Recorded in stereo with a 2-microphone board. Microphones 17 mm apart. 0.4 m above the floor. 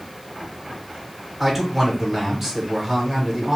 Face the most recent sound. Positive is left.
turn(degrees=-20)  # may be behind; listen again after turning